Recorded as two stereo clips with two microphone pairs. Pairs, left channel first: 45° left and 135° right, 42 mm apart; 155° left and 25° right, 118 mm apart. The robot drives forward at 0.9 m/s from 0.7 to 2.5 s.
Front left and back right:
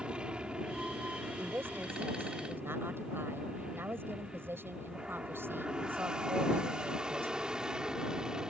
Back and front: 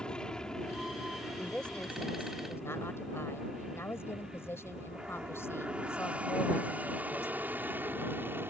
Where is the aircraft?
130° right; by 8.5 s 80° right.